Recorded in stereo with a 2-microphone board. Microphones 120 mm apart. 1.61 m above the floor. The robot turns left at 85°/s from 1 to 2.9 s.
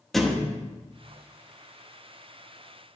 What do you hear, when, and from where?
0.1 s a thud: centre (ahead or behind), 1.0 m